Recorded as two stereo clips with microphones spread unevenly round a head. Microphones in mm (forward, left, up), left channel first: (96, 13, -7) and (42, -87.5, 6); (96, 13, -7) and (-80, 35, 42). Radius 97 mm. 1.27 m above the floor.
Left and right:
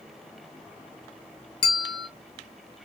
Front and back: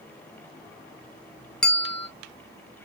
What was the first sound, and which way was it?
A bell, 95° left.